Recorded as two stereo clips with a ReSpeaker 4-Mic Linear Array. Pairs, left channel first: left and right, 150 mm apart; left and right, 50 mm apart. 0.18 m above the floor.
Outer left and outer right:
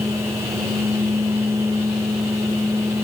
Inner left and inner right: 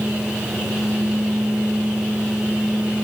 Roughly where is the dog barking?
No dog barking in this recording.